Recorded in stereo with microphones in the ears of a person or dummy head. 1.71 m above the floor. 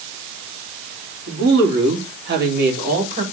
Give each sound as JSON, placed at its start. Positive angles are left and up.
{"t": 1.3, "sound": "a woman speaking", "side_deg": -75, "distance_m": 4.0}